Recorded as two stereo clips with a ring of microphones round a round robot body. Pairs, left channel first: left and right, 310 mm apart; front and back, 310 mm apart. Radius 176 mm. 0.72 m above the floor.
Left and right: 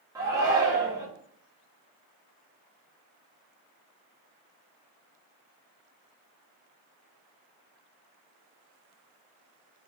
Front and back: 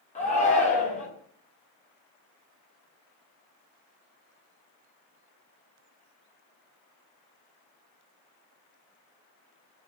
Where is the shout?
25° right, 0.9 m.